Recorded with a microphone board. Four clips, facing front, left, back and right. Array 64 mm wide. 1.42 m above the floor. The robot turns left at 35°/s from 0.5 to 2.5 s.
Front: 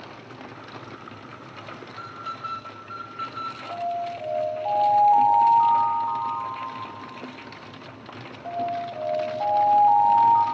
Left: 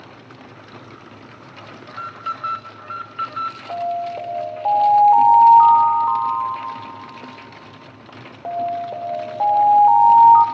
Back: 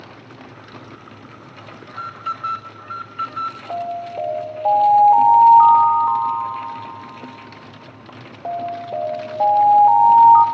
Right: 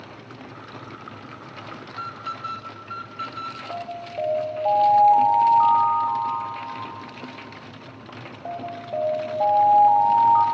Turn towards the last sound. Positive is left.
turn(degrees=130)